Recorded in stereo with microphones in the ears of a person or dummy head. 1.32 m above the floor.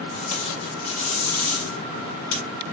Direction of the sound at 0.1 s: 80° left.